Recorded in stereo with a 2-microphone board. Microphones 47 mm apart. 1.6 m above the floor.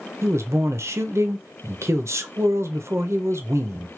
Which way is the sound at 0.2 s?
75° right (ahead or behind).